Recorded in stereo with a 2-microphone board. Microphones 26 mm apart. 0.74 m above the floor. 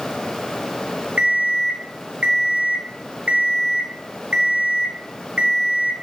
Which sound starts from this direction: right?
An alarm clock, at 1.2 s.